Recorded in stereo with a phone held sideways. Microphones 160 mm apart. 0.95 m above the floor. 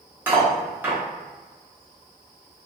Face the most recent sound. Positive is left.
turn(degrees=-10)  # may be behind; listen again after turning